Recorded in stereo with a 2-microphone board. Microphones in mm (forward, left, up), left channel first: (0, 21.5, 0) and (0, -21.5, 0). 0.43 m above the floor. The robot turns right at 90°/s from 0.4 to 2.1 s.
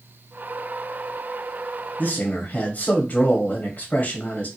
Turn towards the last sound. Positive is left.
turn(degrees=35)  # may be behind; listen again after turning